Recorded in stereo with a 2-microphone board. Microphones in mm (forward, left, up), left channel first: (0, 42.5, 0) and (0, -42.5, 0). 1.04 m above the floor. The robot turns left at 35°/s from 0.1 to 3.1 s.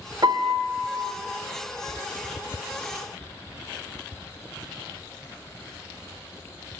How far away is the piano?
About 0.9 m.